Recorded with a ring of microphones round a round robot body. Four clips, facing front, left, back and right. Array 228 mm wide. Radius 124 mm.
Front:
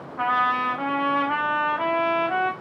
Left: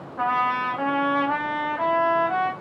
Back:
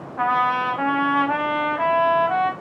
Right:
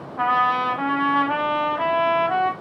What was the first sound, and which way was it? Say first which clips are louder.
A trumpet: right 3 dB, back 2 dB; 155° right.